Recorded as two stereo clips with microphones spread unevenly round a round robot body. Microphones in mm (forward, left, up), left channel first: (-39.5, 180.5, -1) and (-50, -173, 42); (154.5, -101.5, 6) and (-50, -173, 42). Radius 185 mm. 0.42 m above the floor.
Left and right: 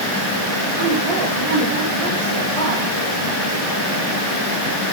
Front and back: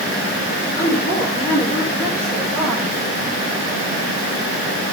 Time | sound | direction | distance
0.8 | a woman speaking | 45° right | 8 m